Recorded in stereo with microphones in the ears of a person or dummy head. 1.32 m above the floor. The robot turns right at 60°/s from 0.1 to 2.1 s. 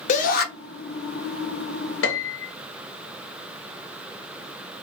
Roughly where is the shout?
Left.